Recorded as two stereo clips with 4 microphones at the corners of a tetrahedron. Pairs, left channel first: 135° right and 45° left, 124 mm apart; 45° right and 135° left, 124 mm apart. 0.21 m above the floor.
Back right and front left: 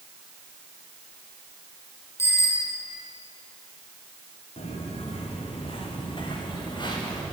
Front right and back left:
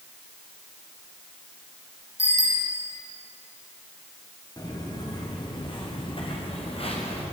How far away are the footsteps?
About 7.5 m.